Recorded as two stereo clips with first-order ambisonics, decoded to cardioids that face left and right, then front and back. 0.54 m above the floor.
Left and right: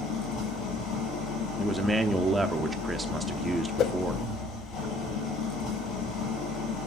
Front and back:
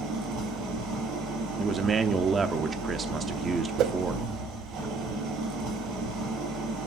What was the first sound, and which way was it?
An engine running, 140° left.